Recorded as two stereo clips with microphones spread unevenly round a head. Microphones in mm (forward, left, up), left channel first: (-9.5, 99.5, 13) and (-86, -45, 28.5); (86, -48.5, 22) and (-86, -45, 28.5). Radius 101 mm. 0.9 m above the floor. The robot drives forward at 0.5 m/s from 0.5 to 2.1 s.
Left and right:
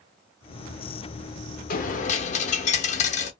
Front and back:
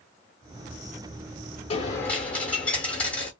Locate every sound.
1.7 s a dropped coin: 55° left, 0.6 m; by 3.3 s 80° left, 0.6 m